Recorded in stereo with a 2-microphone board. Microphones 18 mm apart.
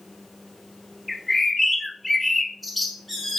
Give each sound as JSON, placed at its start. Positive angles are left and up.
{"t": 1.1, "sound": "a bird", "side_deg": 5, "distance_m": 0.6}